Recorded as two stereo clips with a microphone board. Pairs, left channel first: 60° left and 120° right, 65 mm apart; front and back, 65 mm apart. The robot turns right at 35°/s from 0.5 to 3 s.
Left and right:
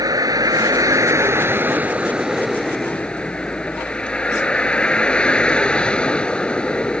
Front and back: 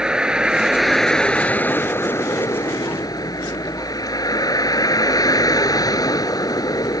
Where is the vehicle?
100° right; by 7.0 s 15° right.